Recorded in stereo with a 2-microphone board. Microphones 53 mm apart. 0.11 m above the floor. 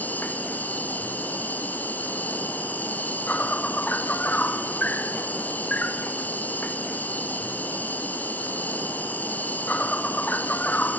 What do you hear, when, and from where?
0.0 s an insect: 35° left (ahead or behind), 1.8 m